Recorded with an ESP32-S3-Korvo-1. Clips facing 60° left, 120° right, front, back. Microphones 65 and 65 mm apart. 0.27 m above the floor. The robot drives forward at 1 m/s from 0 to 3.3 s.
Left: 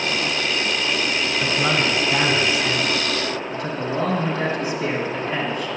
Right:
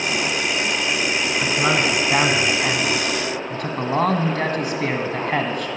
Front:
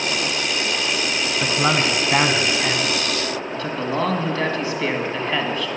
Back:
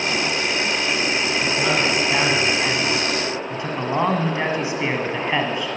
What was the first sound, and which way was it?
A man speaking, 40° right.